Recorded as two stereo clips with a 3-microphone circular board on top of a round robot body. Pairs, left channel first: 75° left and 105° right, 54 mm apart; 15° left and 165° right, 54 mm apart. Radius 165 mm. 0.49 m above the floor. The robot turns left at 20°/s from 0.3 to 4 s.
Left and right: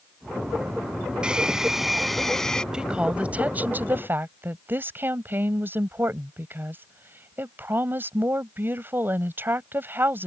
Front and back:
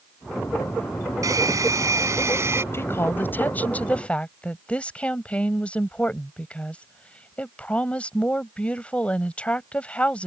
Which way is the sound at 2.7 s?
30° right.